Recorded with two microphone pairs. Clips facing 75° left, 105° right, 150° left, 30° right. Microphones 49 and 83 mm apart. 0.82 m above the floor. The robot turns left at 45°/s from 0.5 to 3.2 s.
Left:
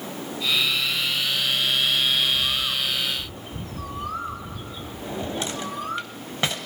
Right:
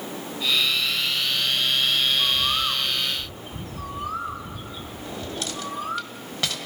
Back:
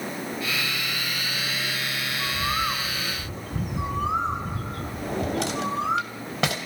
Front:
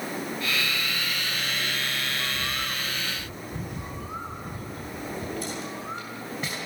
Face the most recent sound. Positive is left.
turn(degrees=140)